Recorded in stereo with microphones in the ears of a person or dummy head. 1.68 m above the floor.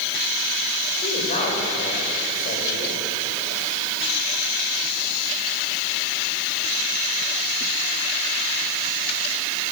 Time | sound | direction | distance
1.0 | a woman speaking | 45° left (ahead or behind) | 6.5 m